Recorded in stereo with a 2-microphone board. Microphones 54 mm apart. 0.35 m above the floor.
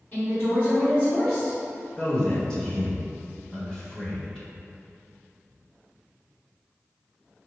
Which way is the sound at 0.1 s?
35° left (ahead or behind).